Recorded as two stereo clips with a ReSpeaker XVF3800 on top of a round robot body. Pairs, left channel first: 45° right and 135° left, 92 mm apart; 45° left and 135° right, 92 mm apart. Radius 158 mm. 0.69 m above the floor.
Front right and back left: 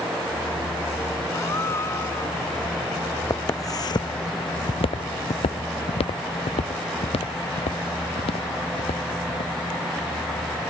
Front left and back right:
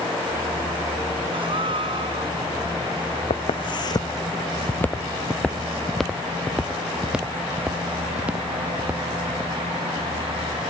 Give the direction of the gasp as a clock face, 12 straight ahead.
4 o'clock.